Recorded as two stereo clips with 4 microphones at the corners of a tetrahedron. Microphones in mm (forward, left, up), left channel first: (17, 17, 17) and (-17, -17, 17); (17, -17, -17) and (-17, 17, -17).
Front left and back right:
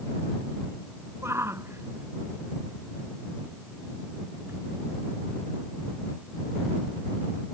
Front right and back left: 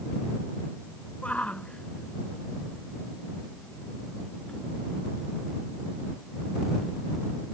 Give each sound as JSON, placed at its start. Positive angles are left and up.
{"t": 1.2, "sound": "a shout", "azimuth_deg": -105}